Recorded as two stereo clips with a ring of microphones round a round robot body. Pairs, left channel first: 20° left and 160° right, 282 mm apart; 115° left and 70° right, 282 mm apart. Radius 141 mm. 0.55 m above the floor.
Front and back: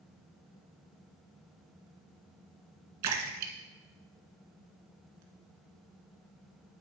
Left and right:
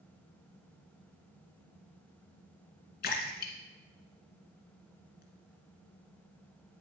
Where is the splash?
170° left, 1.6 m.